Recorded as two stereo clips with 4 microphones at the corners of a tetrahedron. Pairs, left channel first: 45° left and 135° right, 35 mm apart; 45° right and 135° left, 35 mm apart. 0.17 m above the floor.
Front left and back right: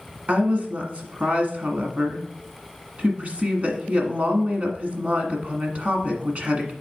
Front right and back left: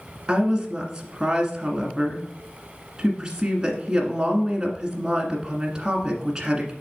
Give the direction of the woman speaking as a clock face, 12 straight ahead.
5 o'clock.